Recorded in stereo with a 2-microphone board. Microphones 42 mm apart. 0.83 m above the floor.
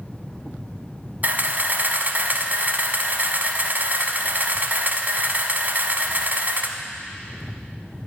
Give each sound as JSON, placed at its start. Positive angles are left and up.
{"t": 1.2, "sound": "a camera shutter", "side_deg": -40, "distance_m": 1.0}